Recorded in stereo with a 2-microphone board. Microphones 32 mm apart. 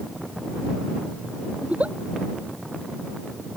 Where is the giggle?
45° right (ahead or behind).